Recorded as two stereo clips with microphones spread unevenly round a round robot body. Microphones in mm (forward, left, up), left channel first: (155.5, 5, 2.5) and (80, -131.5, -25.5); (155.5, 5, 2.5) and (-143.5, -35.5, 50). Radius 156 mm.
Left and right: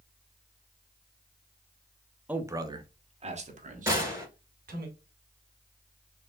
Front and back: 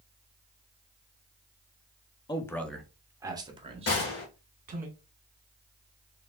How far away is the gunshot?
About 2 m.